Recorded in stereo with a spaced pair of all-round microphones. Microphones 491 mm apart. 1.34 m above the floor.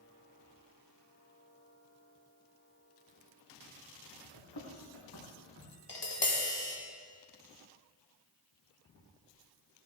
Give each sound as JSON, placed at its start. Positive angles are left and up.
{"t": 4.3, "sound": "running footsteps", "side_deg": 55, "distance_m": 4.0}
{"t": 5.9, "sound": "tapping", "side_deg": 55, "distance_m": 1.6}